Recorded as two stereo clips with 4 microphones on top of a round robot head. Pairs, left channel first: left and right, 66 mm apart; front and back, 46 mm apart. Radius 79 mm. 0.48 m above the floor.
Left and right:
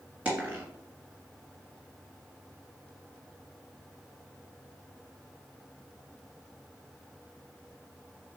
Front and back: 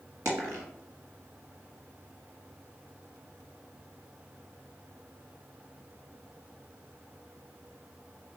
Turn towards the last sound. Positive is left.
turn(degrees=-160)